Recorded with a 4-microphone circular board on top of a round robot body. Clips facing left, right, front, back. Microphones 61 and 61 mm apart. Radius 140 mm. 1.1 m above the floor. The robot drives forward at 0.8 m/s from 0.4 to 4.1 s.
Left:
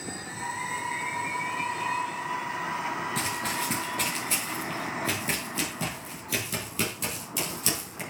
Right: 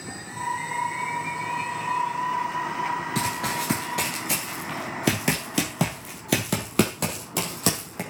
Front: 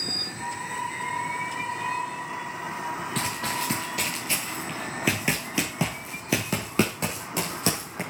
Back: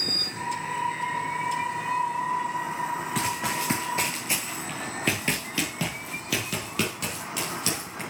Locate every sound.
3.1 s running footsteps: 95° right, 1.1 m; by 8.0 s 55° right, 3 m